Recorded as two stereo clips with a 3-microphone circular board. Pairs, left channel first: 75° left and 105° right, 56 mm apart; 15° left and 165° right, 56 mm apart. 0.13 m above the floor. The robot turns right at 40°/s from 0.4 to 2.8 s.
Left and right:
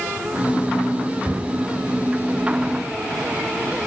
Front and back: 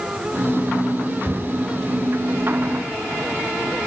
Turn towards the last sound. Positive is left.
turn(degrees=-60)